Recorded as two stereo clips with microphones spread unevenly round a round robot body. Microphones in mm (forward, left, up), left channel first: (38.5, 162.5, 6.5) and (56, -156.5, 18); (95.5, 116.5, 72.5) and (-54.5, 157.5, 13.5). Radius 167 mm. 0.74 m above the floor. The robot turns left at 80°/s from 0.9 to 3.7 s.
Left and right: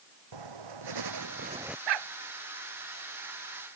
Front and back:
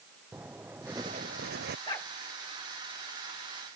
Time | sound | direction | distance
0.3 | writing | 110° right | ?
1.9 | a dog barking | 90° right | ?